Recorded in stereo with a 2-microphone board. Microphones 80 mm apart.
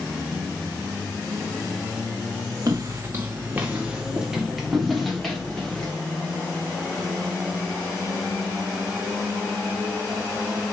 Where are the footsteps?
45° right (ahead or behind), 1.4 m; by 5.9 s 10° left (ahead or behind), 2.5 m.